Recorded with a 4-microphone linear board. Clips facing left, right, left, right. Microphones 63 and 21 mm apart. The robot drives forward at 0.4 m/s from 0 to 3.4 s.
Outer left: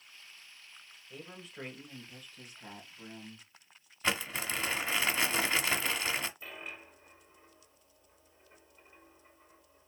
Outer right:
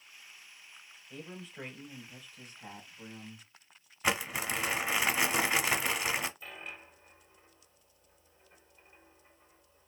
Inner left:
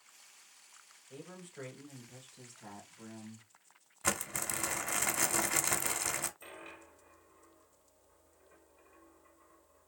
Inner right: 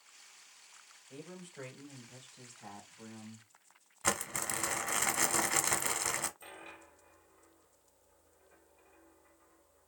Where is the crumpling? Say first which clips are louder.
Outer right 2 dB, inner right 1 dB; 10° right (ahead or behind), 0.7 m.